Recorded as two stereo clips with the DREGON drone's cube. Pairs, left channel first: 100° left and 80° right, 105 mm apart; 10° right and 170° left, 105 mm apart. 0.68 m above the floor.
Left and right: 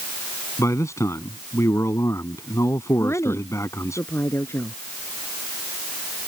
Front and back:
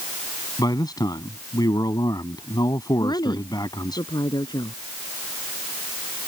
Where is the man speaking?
40° left.